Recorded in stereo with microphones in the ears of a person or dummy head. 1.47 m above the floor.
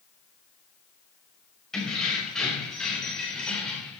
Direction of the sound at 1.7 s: 5° left (ahead or behind).